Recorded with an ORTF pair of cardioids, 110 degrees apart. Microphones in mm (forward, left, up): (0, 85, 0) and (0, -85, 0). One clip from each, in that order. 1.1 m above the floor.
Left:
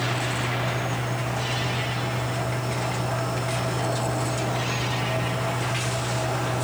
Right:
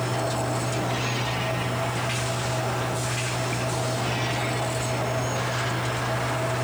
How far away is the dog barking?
I don't hear a dog barking.